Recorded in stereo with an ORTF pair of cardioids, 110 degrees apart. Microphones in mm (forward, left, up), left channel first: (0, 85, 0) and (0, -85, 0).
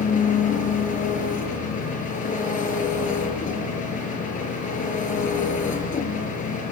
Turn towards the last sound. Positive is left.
turn(degrees=50)